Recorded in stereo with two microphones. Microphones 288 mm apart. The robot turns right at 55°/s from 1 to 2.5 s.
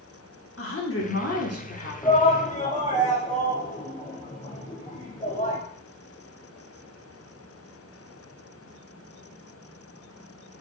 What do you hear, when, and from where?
0.6 s a woman speaking: 65° left, 1.3 m; by 1.9 s 115° left, 1.3 m
2.0 s a shout: 15° left (ahead or behind), 0.8 m; by 5.6 s 25° left (ahead or behind), 0.8 m